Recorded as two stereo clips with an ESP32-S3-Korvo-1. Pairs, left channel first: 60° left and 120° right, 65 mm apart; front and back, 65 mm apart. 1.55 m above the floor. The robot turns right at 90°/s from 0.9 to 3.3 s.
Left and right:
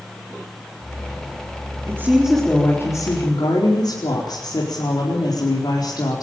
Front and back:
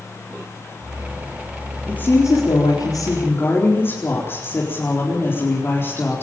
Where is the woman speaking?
75° right, 4.5 m; by 6.2 s 55° left, 4.5 m.